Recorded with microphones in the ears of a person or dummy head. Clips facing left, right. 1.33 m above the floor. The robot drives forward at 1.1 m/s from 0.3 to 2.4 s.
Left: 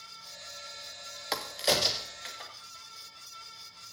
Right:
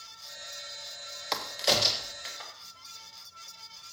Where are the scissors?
No scissors in this recording.